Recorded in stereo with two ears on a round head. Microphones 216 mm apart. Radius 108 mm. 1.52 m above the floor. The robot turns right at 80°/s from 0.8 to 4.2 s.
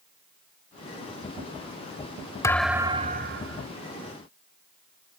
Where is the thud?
165° left; by 3.6 s 100° right.